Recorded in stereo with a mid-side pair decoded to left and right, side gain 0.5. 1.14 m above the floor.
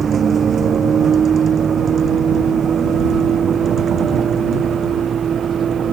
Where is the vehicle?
40° right; by 5.9 s 45° right.